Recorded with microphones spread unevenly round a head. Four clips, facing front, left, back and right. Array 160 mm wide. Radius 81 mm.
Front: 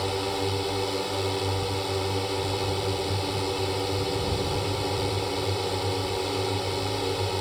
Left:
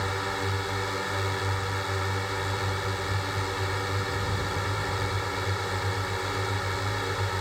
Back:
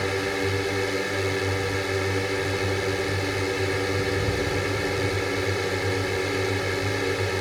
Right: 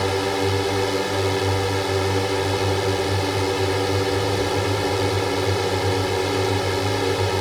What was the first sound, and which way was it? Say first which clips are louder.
A drone: right 9 dB, back 2 dB; 110° right.